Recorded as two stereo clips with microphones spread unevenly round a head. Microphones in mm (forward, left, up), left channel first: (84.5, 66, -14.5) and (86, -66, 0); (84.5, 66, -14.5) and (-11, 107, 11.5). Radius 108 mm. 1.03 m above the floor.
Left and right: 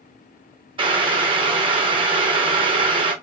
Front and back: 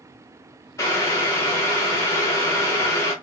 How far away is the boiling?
About 0.8 m.